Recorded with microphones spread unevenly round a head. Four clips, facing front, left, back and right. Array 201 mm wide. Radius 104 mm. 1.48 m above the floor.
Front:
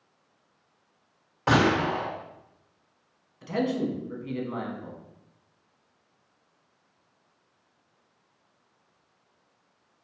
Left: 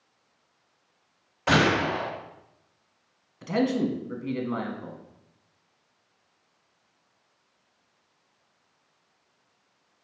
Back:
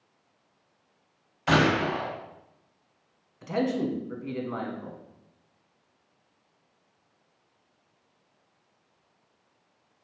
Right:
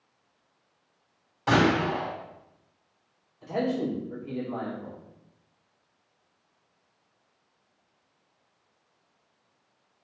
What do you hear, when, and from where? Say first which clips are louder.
1.5 s a gunshot: even, front 1 dB; 10° left, 2.5 m
3.4 s a man speaking: left 3 dB, even; 90° left, 1.2 m